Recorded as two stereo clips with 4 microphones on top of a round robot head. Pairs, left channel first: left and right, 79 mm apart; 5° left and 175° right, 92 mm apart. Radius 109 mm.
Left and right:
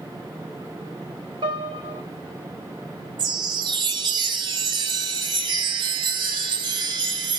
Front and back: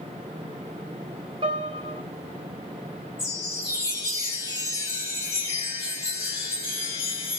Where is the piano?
135° right, 1.7 m.